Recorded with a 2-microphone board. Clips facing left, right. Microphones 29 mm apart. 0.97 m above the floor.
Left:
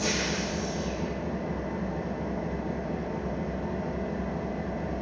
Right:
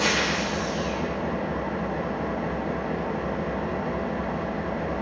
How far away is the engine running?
About 0.8 m.